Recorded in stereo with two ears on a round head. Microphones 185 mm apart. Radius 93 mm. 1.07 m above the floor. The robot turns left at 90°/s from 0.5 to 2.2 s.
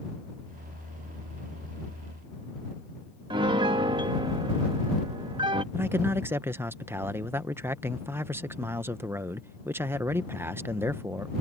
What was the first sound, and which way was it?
A piano, 25° right (ahead or behind).